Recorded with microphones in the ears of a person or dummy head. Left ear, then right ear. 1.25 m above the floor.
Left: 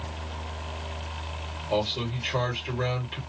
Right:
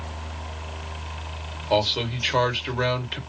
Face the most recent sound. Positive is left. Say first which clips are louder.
# right 6 dB
turn(degrees=-45)  # may be behind; listen again after turning